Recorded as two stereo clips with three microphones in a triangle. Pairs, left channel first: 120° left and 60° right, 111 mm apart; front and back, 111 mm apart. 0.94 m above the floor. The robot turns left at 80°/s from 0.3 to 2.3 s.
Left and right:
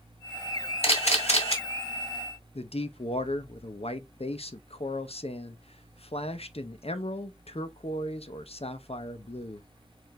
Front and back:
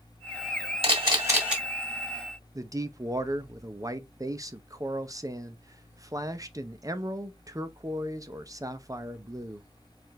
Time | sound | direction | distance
0.8 | a camera shutter | 155° left | 2.0 m
2.5 | a man speaking | 125° left | 0.6 m